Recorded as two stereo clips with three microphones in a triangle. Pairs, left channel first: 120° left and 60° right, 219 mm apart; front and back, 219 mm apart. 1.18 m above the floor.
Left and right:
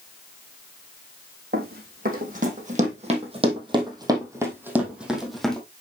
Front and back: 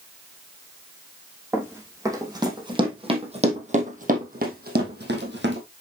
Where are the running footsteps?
100° right, 3.5 m; by 5.6 s 155° right, 3 m.